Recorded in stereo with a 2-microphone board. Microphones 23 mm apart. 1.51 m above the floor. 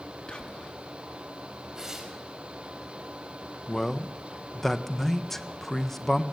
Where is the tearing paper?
25° right (ahead or behind), 5 m.